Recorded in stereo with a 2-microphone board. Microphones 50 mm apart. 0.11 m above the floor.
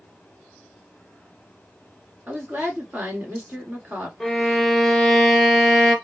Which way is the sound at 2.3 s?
35° right (ahead or behind).